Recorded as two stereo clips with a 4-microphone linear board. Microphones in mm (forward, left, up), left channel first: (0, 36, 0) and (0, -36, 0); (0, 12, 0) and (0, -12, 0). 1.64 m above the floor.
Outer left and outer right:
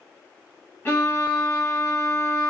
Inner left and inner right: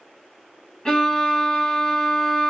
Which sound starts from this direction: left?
A violin, at 0.8 s.